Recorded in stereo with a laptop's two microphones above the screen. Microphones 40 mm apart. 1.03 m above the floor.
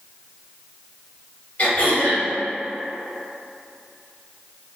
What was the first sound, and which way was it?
Throat clearing, 35° left (ahead or behind).